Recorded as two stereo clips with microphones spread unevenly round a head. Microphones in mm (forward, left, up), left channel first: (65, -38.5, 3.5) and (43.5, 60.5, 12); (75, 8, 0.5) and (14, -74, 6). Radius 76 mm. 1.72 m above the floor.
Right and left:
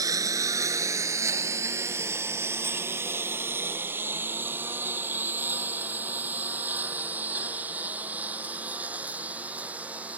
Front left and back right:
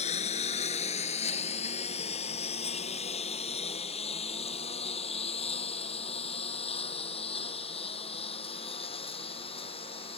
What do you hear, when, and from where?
0.0 s a lawn mower: 50° left; by 10.2 s 25° left